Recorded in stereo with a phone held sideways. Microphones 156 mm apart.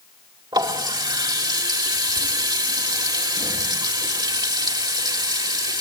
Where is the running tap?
30° right (ahead or behind), 2 m.